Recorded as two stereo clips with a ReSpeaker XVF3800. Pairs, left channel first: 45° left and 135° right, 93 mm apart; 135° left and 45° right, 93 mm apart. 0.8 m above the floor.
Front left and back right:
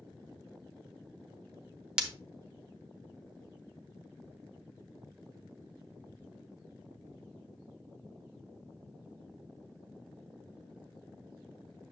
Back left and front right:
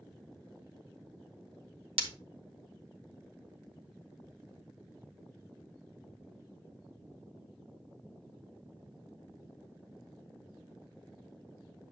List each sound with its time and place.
2.0 s breaking glass: 55° right, 1.2 m